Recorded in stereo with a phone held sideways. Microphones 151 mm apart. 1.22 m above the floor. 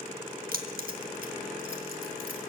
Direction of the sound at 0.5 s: 85° right.